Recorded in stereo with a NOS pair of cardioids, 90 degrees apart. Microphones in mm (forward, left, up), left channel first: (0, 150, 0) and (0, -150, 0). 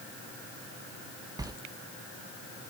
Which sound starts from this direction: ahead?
A sliding door, at 1.4 s.